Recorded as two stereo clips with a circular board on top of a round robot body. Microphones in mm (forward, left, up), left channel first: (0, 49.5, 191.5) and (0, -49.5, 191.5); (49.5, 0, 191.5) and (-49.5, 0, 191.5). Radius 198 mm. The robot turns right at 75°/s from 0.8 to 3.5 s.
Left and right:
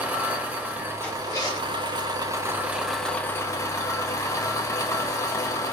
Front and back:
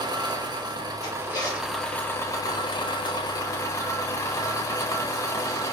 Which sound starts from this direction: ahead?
A zipper, at 1.0 s.